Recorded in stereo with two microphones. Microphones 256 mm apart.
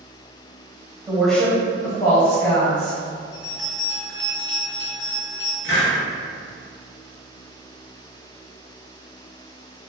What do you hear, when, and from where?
1.1 s a woman speaking: 15° right (ahead or behind), 1.1 m; by 3.0 s 65° left (ahead or behind), 2 m
3.3 s a bell: 45° left (ahead or behind), 1.9 m
5.6 s a hiss: 45° left (ahead or behind), 1.8 m